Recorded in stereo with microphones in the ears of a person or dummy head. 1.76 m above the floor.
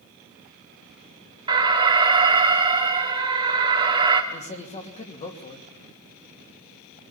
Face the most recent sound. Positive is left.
turn(degrees=30)  # may be behind; listen again after turning